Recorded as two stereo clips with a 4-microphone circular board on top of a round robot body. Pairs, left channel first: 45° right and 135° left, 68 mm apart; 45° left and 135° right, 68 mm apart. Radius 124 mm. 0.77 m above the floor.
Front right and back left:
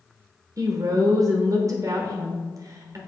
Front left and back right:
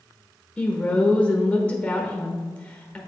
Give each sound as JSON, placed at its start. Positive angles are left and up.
{"t": 0.6, "sound": "a woman speaking", "azimuth_deg": 120, "distance_m": 1.1}